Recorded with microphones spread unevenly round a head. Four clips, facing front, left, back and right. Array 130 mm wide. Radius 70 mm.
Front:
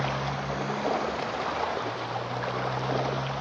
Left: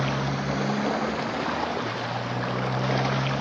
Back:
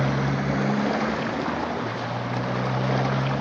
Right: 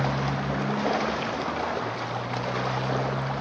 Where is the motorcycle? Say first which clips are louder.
Even, back 5 dB; 175° left; by 3.4 s 160° left.